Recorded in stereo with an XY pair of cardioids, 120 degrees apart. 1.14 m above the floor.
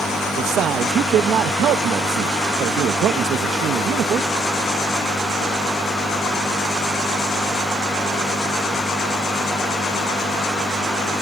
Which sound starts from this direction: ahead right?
A man speaking, at 0.4 s.